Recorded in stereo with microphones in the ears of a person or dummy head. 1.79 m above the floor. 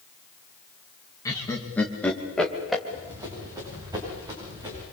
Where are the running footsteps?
20° right (ahead or behind), 8.5 m.